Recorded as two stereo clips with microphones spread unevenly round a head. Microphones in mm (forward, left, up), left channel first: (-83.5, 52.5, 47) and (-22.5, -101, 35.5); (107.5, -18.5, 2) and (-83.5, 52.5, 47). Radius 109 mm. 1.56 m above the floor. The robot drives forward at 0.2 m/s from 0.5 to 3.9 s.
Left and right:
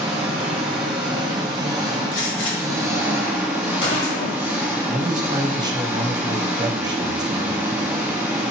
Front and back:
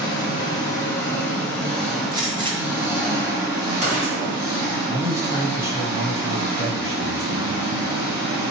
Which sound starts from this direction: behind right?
A man speaking, at 4.9 s.